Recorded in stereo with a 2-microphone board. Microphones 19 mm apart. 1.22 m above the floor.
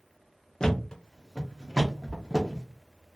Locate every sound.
0.6 s a thud: 35° left (ahead or behind), 0.6 m